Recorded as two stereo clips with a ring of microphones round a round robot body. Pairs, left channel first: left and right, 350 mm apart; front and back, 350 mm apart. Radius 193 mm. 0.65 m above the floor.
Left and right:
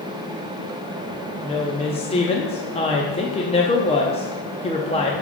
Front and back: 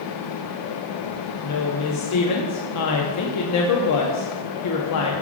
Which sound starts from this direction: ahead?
A woman speaking, at 1.4 s.